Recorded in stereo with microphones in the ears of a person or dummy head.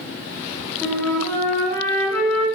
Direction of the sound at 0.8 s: 10° left (ahead or behind).